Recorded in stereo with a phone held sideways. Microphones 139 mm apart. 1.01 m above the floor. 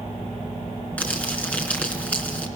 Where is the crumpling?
10° left (ahead or behind), 4 m.